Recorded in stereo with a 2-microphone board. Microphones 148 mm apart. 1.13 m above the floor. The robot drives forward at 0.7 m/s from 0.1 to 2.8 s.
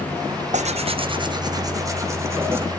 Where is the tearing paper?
55° right (ahead or behind), 0.6 m; by 2.6 s 15° right (ahead or behind), 1.8 m.